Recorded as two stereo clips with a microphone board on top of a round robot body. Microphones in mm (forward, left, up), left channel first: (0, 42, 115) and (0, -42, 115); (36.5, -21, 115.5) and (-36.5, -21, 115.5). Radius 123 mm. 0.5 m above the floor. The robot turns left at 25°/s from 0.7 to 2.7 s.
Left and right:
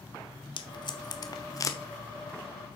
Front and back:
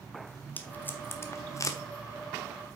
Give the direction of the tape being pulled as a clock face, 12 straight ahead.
10 o'clock.